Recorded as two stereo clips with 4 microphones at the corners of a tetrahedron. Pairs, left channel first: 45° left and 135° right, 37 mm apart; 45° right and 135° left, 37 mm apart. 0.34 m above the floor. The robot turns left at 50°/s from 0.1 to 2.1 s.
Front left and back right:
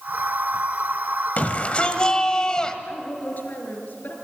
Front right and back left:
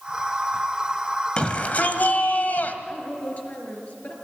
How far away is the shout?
About 1.7 m.